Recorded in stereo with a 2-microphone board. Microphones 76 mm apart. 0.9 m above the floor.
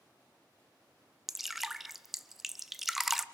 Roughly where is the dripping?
Centre.